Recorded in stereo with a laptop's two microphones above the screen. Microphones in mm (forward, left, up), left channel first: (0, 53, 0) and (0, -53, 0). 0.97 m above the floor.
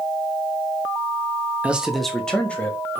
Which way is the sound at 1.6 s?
15° right (ahead or behind).